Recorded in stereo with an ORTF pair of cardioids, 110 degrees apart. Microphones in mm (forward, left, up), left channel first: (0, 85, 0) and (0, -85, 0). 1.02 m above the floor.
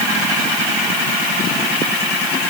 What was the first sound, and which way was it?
Only background noise.